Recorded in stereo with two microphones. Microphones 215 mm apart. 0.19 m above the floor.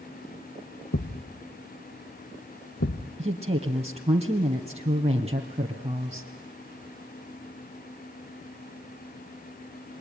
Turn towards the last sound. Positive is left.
turn(degrees=-30)  # may be behind; listen again after turning